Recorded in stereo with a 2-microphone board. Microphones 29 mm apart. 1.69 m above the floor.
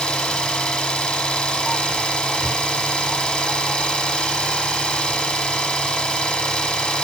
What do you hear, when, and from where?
0.0 s an engine running: 25° left (ahead or behind), 1.4 m